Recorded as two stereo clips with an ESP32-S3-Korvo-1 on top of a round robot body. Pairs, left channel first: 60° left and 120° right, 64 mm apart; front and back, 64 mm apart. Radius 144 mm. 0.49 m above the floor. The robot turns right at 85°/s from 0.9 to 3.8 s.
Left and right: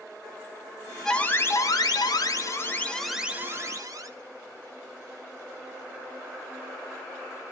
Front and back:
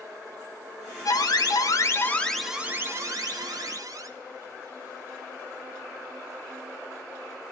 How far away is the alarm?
About 2 m.